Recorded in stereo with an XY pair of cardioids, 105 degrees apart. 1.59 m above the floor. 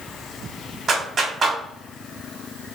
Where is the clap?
50° right, 1.9 m.